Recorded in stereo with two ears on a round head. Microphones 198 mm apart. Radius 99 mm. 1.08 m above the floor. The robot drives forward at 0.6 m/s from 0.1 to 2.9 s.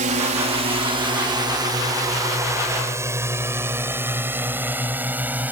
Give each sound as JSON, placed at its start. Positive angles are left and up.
{"t": 0.0, "sound": "a drone", "side_deg": -35}